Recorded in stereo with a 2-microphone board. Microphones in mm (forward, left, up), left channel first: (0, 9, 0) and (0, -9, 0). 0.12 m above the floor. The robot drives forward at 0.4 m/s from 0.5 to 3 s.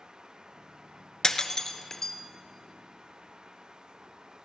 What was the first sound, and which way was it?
Breaking glass, 35° left (ahead or behind).